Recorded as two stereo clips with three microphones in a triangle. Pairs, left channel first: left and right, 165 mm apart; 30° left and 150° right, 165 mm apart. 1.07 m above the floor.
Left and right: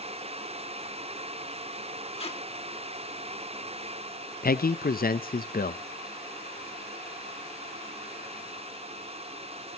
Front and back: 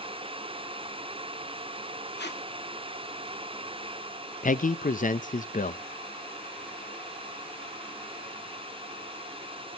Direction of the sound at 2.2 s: 35° left.